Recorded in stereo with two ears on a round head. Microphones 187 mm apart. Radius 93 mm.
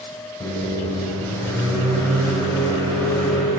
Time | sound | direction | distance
0.4 | a microwave | 15° left (ahead or behind) | 2.5 m